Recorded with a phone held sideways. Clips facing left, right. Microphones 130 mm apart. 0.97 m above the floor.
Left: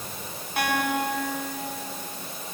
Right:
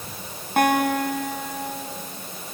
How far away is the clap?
I don't hear a clap.